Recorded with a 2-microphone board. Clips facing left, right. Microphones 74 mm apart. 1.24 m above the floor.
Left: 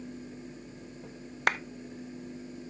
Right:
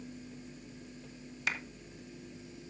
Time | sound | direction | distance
1.5 | a clap | 65° left (ahead or behind) | 0.7 m